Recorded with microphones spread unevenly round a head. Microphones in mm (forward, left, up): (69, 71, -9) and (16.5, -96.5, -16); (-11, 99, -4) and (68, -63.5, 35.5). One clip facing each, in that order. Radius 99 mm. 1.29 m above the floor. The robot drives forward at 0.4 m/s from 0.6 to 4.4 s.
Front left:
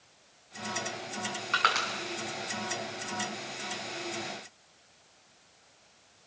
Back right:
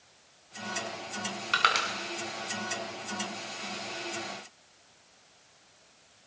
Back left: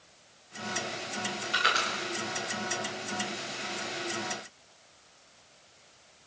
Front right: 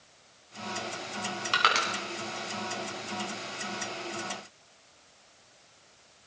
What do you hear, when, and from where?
1.5 s crushing: 55° right, 6.5 m